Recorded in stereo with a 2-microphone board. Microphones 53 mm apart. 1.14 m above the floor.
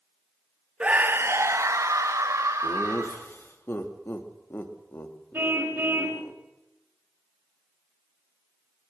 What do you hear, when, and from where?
0.8 s a scream: 25° right (ahead or behind), 0.8 m; by 3.2 s 80° right, 2.5 m
2.6 s laughter: 45° left (ahead or behind), 3 m
5.3 s a car horn: 45° right (ahead or behind), 2 m